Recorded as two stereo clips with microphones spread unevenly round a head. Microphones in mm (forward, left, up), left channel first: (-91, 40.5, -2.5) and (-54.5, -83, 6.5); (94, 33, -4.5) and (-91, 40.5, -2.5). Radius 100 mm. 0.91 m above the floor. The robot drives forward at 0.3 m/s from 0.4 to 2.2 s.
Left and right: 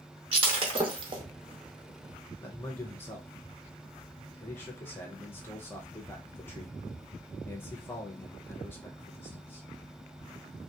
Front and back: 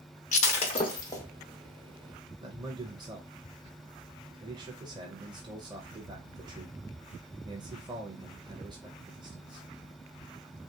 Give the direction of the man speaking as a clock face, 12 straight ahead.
7 o'clock.